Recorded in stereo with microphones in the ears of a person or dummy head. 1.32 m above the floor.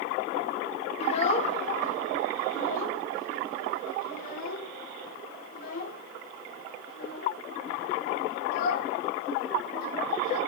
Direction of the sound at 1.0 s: 35° left (ahead or behind).